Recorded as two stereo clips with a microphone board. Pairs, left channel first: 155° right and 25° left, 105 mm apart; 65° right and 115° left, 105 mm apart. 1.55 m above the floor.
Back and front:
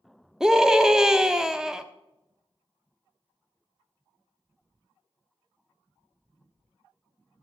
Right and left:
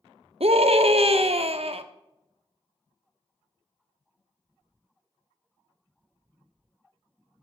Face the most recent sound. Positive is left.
turn(degrees=105)